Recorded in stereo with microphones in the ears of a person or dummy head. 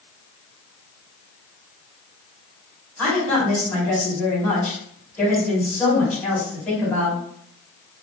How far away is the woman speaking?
About 2.5 m.